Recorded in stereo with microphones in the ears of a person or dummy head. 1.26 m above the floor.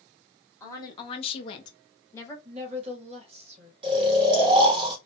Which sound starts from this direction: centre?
A woman speaking, at 0.6 s.